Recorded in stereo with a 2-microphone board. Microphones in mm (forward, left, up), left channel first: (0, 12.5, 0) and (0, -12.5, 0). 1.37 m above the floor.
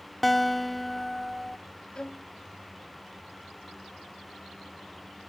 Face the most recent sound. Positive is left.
turn(degrees=25)  # may be behind; listen again after turning